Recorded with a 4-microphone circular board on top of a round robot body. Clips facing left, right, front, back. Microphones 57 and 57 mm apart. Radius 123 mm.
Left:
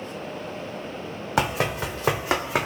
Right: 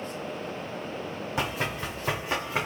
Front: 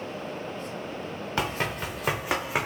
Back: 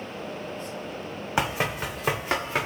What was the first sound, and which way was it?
Running footsteps, 105° left.